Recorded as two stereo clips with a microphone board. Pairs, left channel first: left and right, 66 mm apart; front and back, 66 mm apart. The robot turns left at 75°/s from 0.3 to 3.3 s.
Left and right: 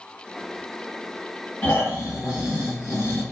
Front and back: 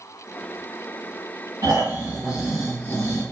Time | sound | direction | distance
1.6 | snoring | 155° left | 1.6 m